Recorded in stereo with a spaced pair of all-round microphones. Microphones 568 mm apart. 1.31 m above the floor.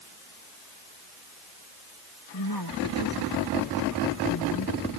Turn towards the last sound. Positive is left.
turn(degrees=40)  # may be behind; listen again after turning